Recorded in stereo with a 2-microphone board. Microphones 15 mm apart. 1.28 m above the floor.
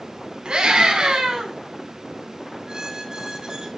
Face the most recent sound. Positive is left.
turn(degrees=-60)  # may be behind; listen again after turning